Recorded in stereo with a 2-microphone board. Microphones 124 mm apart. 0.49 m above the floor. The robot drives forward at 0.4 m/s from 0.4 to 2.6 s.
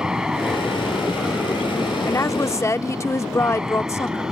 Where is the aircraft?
5° right (ahead or behind).